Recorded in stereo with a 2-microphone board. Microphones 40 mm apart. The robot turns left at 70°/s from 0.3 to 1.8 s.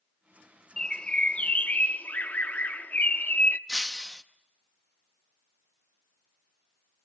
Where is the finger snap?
I don't hear a finger snap.